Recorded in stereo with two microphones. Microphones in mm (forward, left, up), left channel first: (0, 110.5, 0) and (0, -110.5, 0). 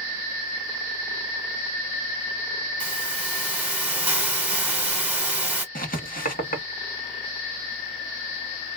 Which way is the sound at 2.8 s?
5° right (ahead or behind).